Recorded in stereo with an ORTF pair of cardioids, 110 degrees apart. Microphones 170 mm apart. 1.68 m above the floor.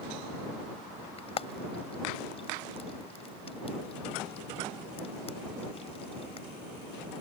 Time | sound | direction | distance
1.2 | frying | 35° left | ?